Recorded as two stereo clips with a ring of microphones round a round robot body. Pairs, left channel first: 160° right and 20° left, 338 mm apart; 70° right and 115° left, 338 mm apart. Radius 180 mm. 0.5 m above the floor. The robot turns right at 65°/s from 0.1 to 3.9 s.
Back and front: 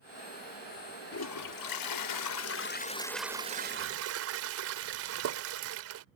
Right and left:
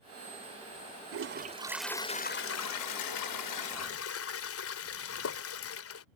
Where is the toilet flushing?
155° left; by 6.0 s 20° right.